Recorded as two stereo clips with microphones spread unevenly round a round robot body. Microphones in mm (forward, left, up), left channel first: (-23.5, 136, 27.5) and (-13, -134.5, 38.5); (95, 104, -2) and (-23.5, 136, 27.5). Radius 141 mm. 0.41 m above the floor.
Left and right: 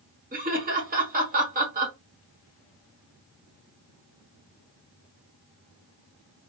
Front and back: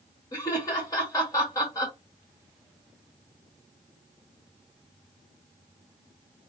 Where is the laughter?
40° right, 1.6 m.